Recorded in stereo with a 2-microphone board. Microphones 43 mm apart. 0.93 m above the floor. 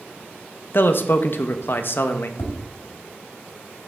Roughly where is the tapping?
Left.